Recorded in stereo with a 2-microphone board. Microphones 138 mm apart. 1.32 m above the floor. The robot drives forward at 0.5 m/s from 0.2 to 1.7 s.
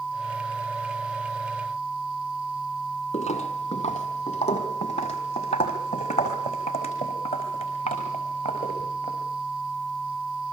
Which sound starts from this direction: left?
Footsteps, at 3.1 s.